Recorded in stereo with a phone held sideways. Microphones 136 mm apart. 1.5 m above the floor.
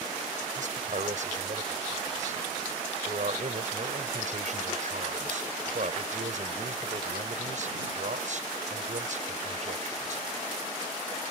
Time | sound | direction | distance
0.6 | a man speaking | 60° right (ahead or behind) | ?